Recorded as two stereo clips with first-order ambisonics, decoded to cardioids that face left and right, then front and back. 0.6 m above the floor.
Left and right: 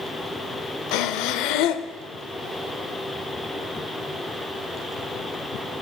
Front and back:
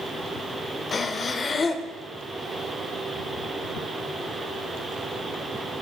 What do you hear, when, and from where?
0.9 s breathing: 70° left, 0.5 m